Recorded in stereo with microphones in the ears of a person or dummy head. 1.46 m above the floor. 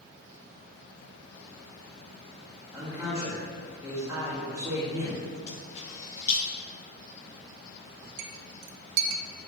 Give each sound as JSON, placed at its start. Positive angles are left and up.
{"t": 2.7, "sound": "a man speaking", "side_deg": -10, "distance_m": 1.9}
{"t": 5.5, "sound": "a camera shutter", "side_deg": 40, "distance_m": 3.0}
{"t": 8.2, "sound": "a clink", "side_deg": -55, "distance_m": 0.7}